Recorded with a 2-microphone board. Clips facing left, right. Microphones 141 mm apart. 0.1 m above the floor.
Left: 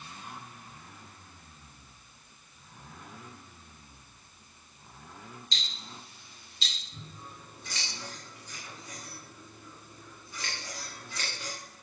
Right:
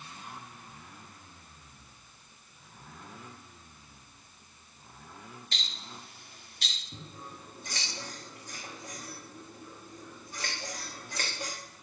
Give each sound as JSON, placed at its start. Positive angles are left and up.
{"t": 5.5, "sound": "ticking", "side_deg": -55, "distance_m": 3.0}
{"t": 6.9, "sound": "scissors", "side_deg": -40, "distance_m": 4.0}